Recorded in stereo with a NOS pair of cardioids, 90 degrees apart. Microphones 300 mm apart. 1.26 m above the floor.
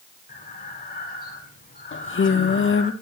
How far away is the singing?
About 1.9 m.